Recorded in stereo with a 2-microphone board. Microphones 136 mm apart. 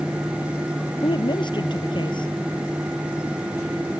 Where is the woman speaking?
35° left (ahead or behind).